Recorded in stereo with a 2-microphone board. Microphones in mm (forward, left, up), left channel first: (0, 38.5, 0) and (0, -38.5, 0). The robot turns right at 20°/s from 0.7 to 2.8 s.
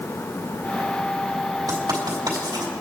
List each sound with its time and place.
1.7 s writing: 55° right (ahead or behind), 3 m; by 2.7 s 75° right (ahead or behind), 3 m